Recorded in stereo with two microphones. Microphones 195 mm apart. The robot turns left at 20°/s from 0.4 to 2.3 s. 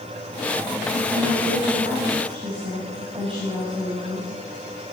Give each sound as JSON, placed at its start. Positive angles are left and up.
{"t": 0.9, "sound": "a woman speaking", "side_deg": -55, "distance_m": 4.5}